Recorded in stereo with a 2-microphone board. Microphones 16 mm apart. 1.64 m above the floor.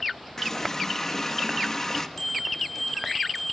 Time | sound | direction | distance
0.4 | a running tap | 35° left (ahead or behind) | 1.2 m
2.2 | a bell | 25° left (ahead or behind) | 8 m